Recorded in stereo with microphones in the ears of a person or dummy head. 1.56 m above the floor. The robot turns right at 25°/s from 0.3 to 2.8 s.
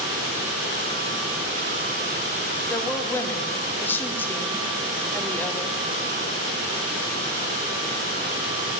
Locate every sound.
2.7 s a woman speaking: 10° left (ahead or behind), 1.0 m